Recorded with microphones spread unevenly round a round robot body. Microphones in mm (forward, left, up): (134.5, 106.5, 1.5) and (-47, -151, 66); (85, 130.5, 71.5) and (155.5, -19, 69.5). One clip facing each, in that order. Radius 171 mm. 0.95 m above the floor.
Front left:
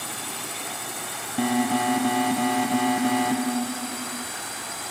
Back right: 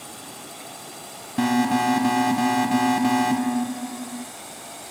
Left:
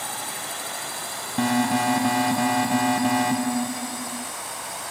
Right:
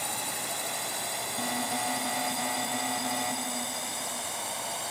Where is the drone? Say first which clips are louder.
Front left 3 dB, left 2 dB; 10° left; by 4.9 s 5° right.